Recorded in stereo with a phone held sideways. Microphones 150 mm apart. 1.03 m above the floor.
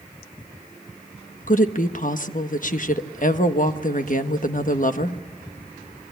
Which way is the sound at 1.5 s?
60° left (ahead or behind).